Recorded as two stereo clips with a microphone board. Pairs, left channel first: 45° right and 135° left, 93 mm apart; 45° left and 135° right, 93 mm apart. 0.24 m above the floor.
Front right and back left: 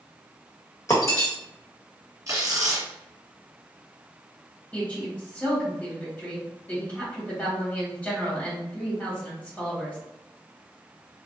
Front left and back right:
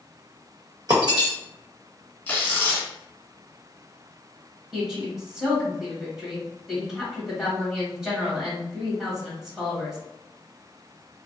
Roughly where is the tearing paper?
Left.